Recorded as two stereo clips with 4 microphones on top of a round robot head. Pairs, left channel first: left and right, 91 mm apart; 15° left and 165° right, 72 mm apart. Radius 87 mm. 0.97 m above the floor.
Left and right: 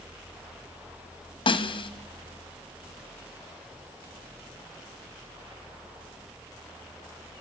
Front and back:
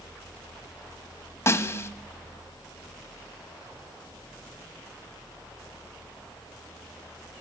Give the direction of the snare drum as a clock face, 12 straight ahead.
10 o'clock.